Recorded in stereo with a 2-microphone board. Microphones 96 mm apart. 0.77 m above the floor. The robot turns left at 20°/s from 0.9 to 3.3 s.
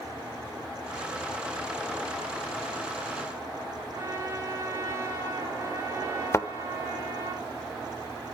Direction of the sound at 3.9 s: 30° right (ahead or behind).